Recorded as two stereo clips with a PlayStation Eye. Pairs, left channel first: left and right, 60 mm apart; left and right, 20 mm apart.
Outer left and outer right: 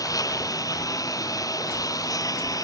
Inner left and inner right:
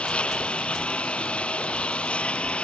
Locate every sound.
0.0 s a lawn mower: 85° left